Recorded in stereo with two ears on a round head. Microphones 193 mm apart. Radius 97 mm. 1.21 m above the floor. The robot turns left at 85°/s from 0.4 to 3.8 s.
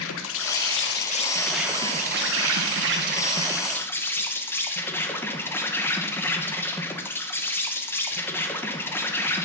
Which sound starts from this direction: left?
An insect, at 0.0 s.